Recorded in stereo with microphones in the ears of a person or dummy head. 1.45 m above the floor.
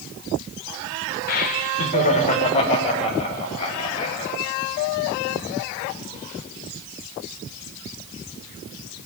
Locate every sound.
1.3 s laughter: 45° left (ahead or behind), 0.9 m; by 4.3 s 30° left (ahead or behind), 3 m